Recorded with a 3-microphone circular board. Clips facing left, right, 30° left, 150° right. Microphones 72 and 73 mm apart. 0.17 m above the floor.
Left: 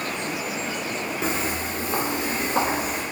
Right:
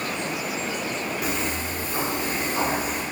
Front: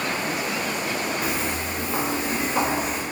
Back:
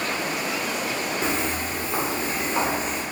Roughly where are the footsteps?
Behind left.